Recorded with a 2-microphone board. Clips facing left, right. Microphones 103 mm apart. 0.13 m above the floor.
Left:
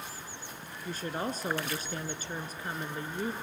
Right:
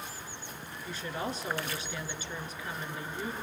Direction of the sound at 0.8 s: 45° left (ahead or behind).